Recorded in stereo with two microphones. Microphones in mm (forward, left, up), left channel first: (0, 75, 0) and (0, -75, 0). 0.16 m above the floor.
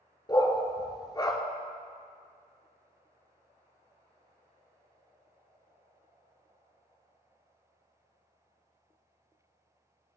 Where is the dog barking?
30° left (ahead or behind), 0.8 m.